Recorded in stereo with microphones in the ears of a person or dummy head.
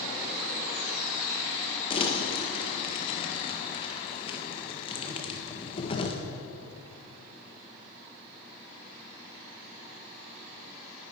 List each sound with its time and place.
1.9 s crumpling: 30° left (ahead or behind), 1.4 m